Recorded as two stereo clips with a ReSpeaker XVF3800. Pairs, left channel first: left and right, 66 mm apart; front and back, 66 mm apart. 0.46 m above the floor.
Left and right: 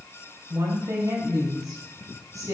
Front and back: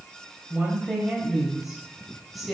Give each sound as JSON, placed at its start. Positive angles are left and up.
{"t": 0.5, "sound": "a woman speaking", "azimuth_deg": -90, "distance_m": 3.0}